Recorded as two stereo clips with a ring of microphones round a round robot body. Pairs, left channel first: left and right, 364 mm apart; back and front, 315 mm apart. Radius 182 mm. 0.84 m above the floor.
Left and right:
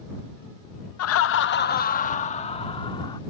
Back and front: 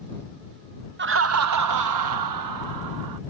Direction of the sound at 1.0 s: 50° left.